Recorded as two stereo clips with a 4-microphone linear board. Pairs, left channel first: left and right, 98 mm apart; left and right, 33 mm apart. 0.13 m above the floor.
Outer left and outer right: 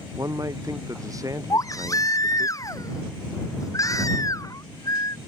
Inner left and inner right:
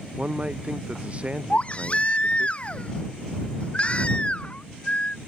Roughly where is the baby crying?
Left.